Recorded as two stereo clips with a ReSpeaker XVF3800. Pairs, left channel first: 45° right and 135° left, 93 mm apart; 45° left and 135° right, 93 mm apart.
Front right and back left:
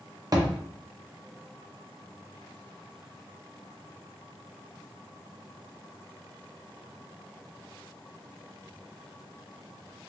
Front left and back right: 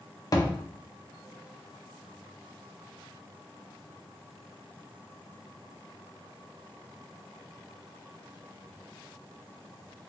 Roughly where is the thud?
Left.